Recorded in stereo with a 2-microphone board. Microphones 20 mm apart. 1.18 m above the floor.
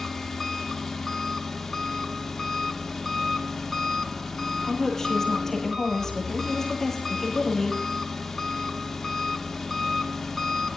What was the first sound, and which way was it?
An engine running, 5° left (ahead or behind).